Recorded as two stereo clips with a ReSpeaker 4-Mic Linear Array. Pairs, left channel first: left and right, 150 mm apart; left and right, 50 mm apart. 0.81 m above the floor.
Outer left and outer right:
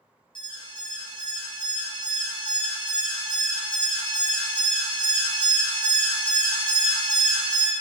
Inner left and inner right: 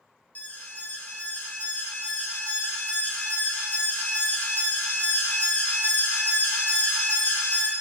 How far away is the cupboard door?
No cupboard door in this recording.